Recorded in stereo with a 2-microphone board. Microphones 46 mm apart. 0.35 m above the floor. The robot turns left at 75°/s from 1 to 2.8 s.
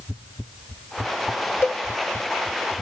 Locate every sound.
1.6 s a cowbell: 75° left (ahead or behind), 0.6 m; by 1.8 s 70° left (ahead or behind), 0.6 m